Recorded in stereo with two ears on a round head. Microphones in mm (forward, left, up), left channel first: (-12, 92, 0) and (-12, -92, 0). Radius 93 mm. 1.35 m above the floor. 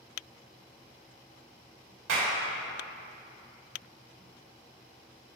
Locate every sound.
2.1 s a clap: 60° right (ahead or behind), 2 m